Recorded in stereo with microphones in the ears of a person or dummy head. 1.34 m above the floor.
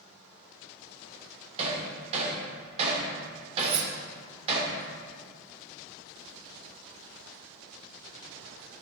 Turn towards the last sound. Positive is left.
turn(degrees=-25)  # may be behind; listen again after turning